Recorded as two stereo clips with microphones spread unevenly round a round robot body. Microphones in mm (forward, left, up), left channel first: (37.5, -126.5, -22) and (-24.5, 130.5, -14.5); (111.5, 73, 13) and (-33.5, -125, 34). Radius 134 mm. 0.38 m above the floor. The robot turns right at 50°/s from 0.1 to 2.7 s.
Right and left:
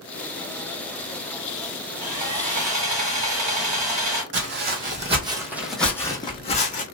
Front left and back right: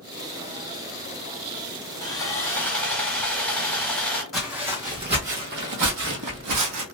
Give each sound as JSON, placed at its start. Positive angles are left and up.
{"t": 2.0, "sound": "sawing", "azimuth_deg": 90, "distance_m": 0.9}
{"t": 4.3, "sound": "footsteps", "azimuth_deg": 145, "distance_m": 1.0}